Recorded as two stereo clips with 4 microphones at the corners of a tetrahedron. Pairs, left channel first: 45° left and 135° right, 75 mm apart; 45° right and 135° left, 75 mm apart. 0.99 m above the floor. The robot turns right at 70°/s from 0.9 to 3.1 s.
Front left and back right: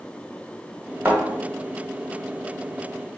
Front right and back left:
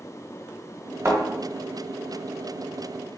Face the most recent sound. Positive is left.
turn(degrees=-50)